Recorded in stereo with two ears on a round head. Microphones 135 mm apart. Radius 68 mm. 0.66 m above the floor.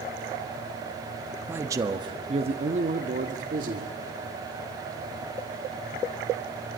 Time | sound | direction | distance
1.5 | a man speaking | 15° right (ahead or behind) | 1.2 m